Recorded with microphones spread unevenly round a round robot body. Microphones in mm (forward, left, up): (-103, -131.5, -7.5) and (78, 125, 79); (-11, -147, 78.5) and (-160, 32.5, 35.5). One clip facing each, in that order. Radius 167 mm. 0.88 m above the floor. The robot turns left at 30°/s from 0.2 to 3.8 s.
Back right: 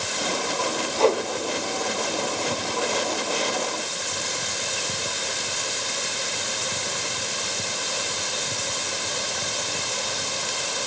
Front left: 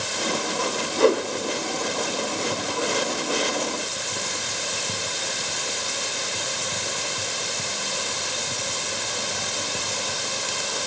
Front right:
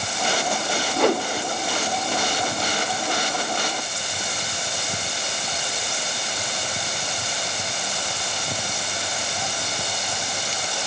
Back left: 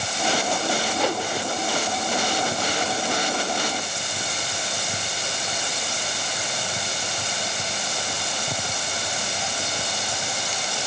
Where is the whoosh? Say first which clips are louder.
Front left 2 dB, front right 9 dB; 25° right, 0.9 m; by 1.3 s 35° right, 0.9 m.